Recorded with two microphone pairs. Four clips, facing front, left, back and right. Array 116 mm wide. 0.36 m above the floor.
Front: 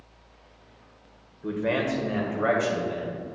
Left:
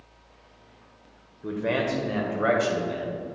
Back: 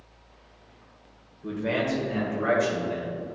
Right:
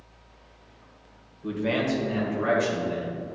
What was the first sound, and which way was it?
A man speaking, 25° left.